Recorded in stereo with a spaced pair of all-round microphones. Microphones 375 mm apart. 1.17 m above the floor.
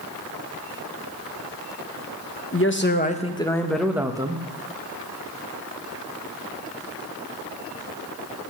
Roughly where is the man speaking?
Left.